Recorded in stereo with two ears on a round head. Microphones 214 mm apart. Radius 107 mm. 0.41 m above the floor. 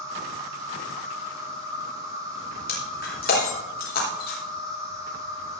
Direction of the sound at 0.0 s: 15° right (ahead or behind).